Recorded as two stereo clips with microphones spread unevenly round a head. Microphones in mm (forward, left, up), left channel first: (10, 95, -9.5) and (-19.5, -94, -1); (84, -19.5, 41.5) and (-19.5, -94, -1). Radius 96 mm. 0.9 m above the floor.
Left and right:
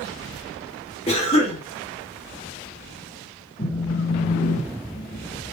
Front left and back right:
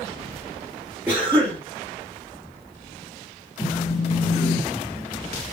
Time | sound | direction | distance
1.1 | a cough | 140° left | 2.5 m
3.6 | a phone buzzing | 120° left | 1.3 m